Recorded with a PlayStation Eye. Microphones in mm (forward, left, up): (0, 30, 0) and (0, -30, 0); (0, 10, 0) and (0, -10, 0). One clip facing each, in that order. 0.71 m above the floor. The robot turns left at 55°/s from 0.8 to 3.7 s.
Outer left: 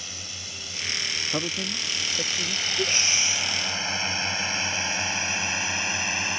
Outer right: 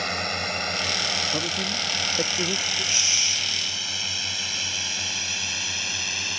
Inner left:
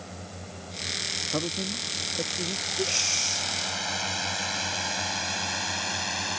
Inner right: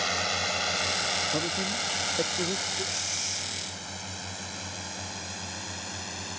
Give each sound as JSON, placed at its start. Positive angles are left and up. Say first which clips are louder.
{"t": 0.0, "sound": "a drone", "louder": "outer right 14 dB, inner right 14 dB", "side_deg": -60}
{"t": 1.3, "sound": "a man speaking", "louder": "outer right 2 dB, inner right 1 dB", "side_deg": 10}
{"t": 2.8, "sound": "breathing", "louder": "outer left 2 dB, inner left 5 dB", "azimuth_deg": 50}